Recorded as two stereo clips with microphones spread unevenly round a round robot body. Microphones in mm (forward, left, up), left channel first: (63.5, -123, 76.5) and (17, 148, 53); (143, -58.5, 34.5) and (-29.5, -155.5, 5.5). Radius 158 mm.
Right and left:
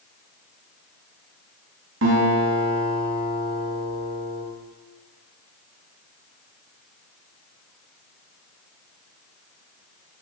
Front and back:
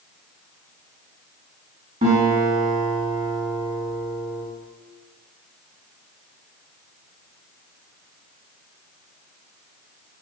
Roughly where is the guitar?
Behind left.